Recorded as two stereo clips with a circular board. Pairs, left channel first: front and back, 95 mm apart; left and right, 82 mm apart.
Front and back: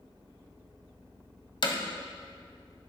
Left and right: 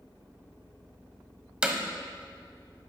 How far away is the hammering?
About 1.2 m.